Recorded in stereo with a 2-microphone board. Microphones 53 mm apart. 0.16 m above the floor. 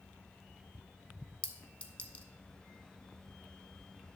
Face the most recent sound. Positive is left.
turn(degrees=25)  # may be behind; listen again after turning